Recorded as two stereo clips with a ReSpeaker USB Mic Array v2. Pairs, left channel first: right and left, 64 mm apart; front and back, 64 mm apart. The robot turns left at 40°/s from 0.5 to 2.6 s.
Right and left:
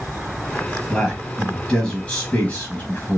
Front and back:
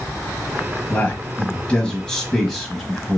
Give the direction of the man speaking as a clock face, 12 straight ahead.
12 o'clock.